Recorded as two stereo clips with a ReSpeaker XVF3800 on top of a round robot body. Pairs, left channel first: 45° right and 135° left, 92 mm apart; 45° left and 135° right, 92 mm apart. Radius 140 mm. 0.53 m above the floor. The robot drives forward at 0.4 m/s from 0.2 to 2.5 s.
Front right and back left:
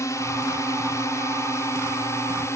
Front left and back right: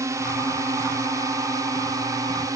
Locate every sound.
0.0 s a drone: 90° right; by 2.6 s 95° right